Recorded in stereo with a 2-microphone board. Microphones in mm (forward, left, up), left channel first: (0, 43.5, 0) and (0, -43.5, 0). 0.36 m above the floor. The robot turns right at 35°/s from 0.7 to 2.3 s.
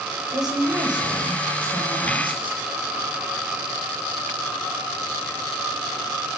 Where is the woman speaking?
130° right, 8 m; by 2.6 s 75° right, 8 m.